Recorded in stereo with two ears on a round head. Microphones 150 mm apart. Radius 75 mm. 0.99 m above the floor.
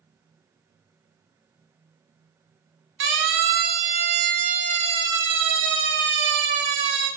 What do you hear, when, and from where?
3.0 s a siren: 80° right, 4.5 m